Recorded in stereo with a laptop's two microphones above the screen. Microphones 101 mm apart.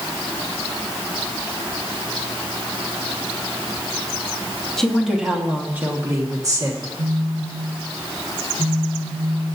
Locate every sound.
4.8 s a woman speaking: 5° left (ahead or behind), 1.3 m; by 6.9 s 40° right (ahead or behind), 1.8 m
7.0 s a phone buzzing: 45° right (ahead or behind), 3.5 m